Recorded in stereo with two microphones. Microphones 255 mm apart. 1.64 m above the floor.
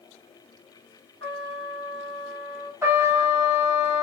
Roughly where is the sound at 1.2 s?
Right.